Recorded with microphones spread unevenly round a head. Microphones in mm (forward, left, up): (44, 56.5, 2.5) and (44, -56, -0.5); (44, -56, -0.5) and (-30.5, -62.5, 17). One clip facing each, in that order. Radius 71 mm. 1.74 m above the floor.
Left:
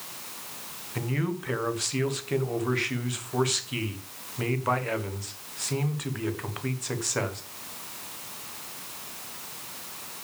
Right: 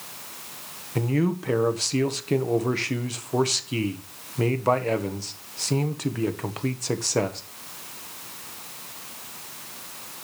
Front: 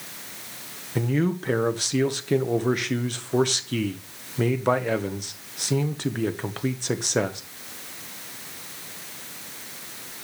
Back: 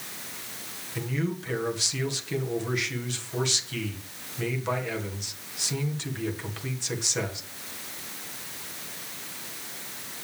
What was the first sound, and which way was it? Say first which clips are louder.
A man speaking: right 6 dB, front 7 dB; 35° right.